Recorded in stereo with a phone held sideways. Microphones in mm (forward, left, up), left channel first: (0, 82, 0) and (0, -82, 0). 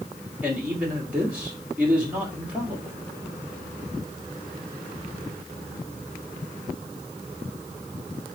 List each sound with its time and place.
0.4 s a man speaking: 10° right (ahead or behind), 2.5 m